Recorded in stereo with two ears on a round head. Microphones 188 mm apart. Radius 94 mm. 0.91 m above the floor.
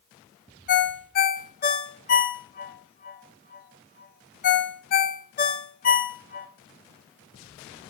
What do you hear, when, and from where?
0.7 s a ringtone: 40° left (ahead or behind), 0.7 m